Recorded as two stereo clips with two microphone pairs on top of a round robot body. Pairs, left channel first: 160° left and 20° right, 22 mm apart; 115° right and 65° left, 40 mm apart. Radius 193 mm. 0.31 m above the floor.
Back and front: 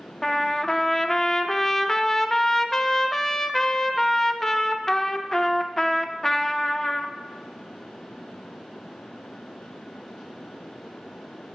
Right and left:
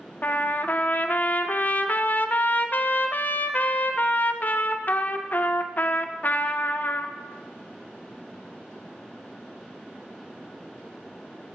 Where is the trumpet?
130° right, 0.6 m.